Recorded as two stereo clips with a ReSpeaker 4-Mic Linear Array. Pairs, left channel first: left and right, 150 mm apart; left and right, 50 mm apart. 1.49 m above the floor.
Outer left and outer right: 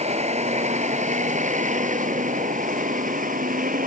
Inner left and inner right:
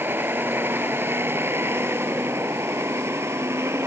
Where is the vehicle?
45° right (ahead or behind); by 3.9 s 65° right (ahead or behind).